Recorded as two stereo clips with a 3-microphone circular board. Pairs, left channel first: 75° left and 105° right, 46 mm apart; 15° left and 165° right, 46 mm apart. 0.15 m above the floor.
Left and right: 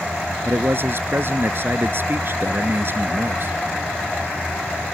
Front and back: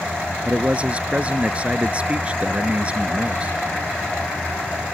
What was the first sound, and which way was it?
A man speaking, 110° right.